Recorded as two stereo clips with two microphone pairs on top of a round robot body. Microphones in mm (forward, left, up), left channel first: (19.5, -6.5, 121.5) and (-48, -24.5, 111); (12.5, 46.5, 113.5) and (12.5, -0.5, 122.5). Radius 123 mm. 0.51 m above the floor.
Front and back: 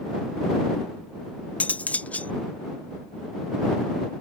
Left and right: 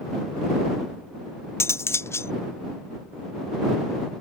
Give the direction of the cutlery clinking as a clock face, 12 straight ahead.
9 o'clock.